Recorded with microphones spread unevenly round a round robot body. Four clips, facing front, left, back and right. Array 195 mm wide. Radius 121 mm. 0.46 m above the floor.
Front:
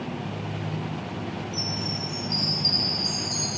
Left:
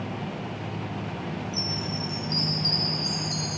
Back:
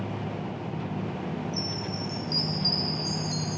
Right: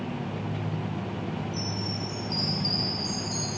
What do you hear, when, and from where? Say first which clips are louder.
1.5 s a chime: left 1 dB, front 1 dB; 135° left, 0.7 m